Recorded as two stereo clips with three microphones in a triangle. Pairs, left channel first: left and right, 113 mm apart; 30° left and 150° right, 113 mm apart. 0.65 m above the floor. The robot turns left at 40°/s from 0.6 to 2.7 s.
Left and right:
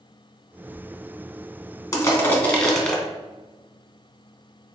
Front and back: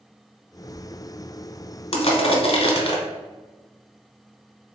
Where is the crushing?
35° left, 0.9 m; by 3.0 s 5° left, 0.9 m.